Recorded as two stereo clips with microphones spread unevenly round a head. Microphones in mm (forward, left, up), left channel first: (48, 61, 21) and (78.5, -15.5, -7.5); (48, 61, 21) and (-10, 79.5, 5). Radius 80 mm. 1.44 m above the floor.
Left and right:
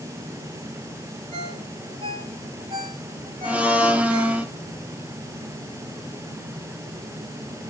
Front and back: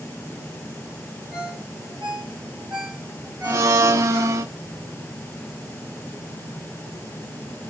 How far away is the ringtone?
About 5.5 m.